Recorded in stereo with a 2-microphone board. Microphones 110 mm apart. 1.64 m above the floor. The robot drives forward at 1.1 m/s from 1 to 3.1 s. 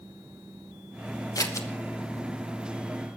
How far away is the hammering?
I don't hear hammering.